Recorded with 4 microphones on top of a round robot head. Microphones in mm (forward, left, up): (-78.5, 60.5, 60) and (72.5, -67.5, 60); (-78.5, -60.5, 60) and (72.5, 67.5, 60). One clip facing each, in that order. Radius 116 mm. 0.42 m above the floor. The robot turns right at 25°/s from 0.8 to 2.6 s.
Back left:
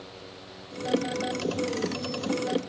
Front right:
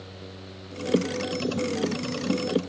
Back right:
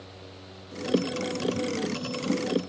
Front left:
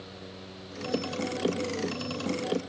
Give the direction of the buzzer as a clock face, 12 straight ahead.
No buzzer in this recording.